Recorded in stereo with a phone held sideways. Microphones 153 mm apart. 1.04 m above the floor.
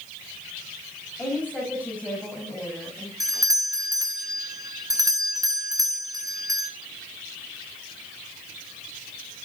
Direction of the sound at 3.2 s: 20° right (ahead or behind).